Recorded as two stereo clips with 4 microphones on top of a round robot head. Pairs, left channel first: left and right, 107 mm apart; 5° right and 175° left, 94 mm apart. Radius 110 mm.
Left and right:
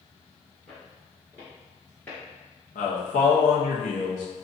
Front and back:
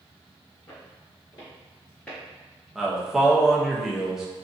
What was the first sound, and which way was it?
Footsteps, 10° left.